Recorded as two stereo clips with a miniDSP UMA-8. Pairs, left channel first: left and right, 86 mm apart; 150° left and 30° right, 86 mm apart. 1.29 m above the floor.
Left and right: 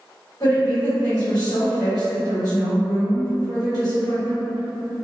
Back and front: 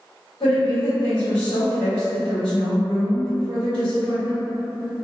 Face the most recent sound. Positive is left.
turn(degrees=130)